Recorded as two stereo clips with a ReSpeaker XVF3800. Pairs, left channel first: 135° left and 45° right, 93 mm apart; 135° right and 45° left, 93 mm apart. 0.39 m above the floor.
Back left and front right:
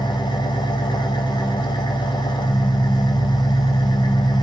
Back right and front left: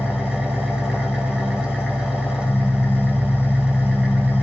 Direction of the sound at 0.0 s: 125° left.